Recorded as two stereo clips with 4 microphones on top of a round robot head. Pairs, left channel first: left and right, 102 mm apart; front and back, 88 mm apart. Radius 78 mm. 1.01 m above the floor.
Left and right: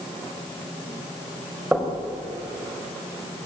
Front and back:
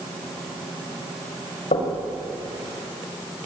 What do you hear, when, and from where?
1.7 s knocking: 15° right, 4.5 m